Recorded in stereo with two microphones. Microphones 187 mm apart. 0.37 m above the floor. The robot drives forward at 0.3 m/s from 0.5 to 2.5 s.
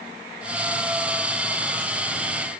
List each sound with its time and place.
Only background noise.